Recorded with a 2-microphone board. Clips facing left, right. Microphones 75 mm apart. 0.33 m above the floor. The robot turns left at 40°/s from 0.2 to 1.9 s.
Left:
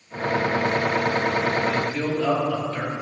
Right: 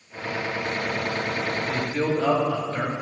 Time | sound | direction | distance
1.7 | a man speaking | 30° right (ahead or behind) | 2 m